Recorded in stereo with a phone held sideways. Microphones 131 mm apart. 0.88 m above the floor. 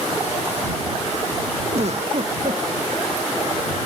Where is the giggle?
60° right (ahead or behind).